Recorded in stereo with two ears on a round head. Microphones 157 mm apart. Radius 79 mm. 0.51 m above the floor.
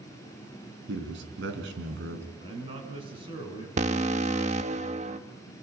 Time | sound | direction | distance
0.9 | a man speaking | 70° right (ahead or behind) | 4.5 m
2.4 | a man speaking | 30° right (ahead or behind) | 5.5 m
3.8 | an alarm | 40° right (ahead or behind) | 1.2 m